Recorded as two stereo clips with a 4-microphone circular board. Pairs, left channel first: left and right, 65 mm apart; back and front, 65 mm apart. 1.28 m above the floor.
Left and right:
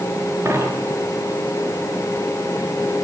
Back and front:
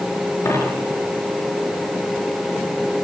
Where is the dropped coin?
140° right, 8 m.